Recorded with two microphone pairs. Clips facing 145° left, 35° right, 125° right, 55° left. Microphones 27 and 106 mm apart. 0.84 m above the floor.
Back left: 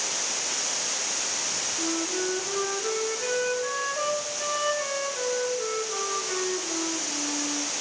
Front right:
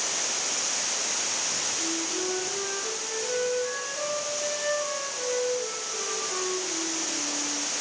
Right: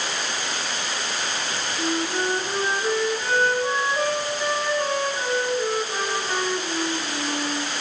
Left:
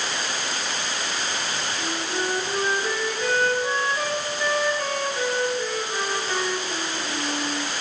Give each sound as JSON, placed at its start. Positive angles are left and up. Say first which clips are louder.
{"t": 1.8, "sound": "a flute", "louder": "back left 2 dB, right 5 dB", "azimuth_deg": 175, "distance_m": 2.0}